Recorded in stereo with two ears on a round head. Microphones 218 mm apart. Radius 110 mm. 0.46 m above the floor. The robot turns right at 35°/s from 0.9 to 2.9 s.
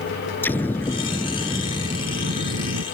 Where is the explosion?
170° left; by 2.9 s 120° right.